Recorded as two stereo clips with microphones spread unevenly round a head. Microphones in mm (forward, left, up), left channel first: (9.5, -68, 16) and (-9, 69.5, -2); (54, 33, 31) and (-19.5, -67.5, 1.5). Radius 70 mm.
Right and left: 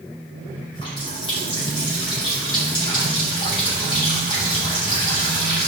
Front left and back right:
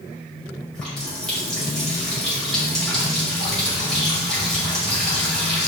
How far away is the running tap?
About 6 m.